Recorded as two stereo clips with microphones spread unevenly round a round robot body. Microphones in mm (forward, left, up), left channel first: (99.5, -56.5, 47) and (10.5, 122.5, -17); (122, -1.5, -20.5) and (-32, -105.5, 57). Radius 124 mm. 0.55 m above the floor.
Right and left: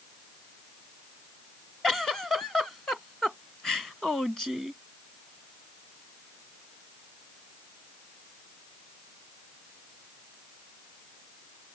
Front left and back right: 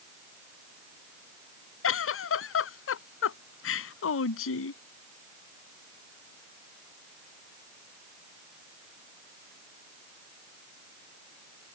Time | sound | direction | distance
1.8 | a giggle | 20° left | ?